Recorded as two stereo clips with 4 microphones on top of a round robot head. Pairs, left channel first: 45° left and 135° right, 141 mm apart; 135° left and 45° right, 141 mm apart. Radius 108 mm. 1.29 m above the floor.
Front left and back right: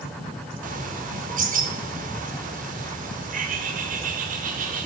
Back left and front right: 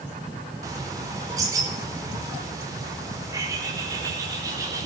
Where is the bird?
110° right, 4.5 m.